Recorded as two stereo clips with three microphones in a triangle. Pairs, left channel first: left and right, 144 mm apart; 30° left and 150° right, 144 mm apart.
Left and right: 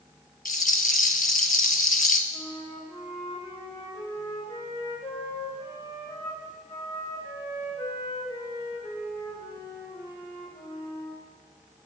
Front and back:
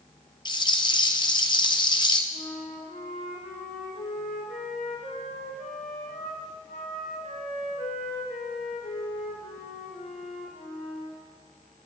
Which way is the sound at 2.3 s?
25° left.